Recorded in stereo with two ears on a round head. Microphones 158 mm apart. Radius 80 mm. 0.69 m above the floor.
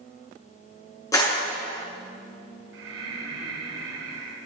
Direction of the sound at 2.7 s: 85° right.